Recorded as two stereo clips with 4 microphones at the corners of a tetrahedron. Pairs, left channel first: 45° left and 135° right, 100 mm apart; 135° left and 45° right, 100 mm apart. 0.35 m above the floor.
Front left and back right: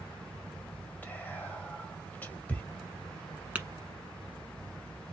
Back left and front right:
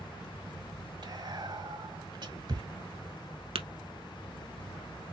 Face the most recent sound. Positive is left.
turn(degrees=-60)